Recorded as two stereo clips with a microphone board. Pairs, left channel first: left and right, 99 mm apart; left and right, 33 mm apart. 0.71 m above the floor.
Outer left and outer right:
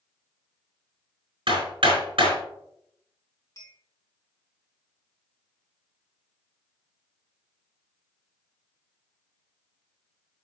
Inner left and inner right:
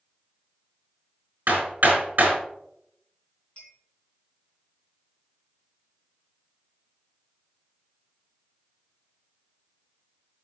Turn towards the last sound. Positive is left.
turn(degrees=35)  # may be behind; listen again after turning